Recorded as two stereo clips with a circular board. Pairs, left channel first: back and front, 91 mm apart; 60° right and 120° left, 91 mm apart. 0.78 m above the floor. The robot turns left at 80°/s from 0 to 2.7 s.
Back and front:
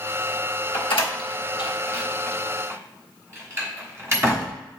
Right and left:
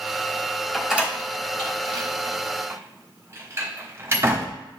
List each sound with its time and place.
0.7 s a door slam: 145° right, 1.2 m; by 4.5 s 60° left, 1.2 m